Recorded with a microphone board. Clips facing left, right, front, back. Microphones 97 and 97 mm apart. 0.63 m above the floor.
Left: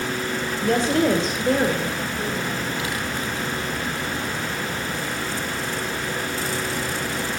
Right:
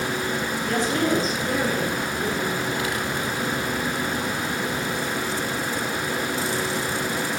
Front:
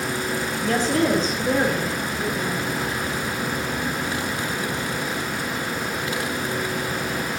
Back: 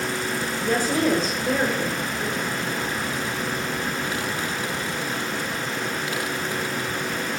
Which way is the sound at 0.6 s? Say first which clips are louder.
Left 5 dB, front 1 dB; 105° left.